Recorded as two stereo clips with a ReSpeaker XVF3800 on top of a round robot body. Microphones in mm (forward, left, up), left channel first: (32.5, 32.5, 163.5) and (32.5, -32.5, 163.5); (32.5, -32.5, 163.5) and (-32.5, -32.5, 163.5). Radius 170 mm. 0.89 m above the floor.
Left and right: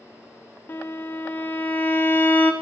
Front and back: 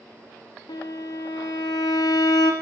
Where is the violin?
30° left, 0.5 m.